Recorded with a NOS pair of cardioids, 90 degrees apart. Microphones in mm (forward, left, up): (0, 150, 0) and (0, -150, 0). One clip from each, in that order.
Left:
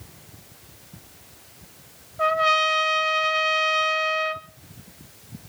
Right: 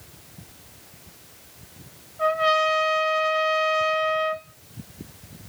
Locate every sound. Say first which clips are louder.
2.2 s a trumpet: left 1 dB; 40° left, 2 m